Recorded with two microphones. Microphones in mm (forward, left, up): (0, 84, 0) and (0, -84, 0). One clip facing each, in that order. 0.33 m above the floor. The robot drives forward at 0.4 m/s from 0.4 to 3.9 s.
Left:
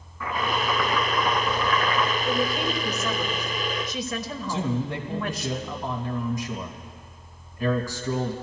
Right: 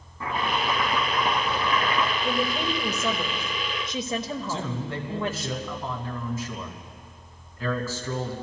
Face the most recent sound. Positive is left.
turn(degrees=15)  # may be behind; listen again after turning